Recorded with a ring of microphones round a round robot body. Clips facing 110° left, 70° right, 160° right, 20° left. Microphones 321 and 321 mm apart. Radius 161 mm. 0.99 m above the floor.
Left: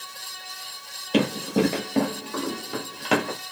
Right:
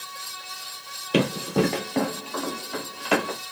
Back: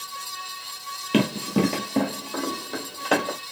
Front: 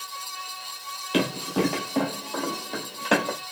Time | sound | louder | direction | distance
1.1 | running footsteps | even, back 3 dB | 140° right | 1.1 m